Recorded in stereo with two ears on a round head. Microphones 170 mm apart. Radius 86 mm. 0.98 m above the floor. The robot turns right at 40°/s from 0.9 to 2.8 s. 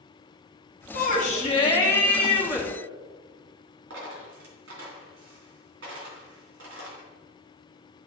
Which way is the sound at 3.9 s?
75° right (ahead or behind).